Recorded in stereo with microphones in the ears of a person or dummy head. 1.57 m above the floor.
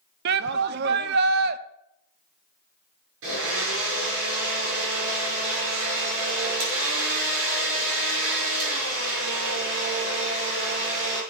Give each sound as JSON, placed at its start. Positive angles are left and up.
{"t": 0.2, "sound": "a shout", "side_deg": -60, "distance_m": 0.9}
{"t": 3.2, "sound": "a blender", "side_deg": -80, "distance_m": 7.0}